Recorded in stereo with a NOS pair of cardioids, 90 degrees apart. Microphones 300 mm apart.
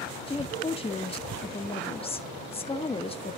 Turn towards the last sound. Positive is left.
turn(degrees=20)